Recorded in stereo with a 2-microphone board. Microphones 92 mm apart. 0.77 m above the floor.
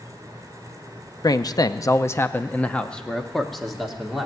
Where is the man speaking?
45° left (ahead or behind), 0.6 m; by 4.3 s centre (ahead or behind), 1.5 m.